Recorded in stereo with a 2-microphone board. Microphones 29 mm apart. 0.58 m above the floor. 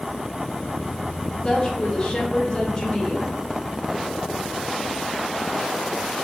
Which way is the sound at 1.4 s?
20° left (ahead or behind).